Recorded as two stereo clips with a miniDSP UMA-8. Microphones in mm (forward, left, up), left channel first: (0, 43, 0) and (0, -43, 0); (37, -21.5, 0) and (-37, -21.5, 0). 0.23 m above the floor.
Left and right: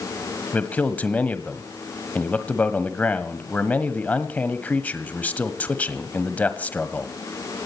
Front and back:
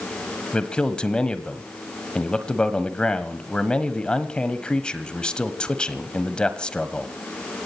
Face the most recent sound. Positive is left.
turn(degrees=55)